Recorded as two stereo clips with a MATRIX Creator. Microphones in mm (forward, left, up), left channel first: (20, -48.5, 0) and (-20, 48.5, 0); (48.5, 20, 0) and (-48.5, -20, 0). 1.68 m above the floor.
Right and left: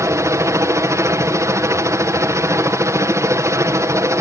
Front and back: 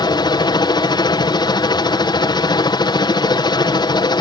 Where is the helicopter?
55° left.